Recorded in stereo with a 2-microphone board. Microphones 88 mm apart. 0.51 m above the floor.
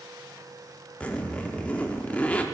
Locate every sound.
1.0 s a zipper: 15° left (ahead or behind), 0.6 m